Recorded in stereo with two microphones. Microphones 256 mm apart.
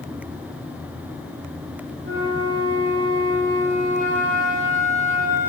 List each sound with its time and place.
2.0 s a flute: 30° right (ahead or behind), 2.5 m